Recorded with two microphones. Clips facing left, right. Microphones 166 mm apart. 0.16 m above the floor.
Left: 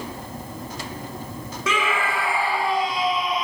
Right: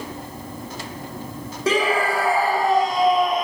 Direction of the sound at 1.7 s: 35° right (ahead or behind).